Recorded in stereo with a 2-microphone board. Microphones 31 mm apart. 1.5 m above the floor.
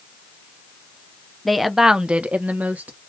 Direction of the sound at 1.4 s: 10° left (ahead or behind).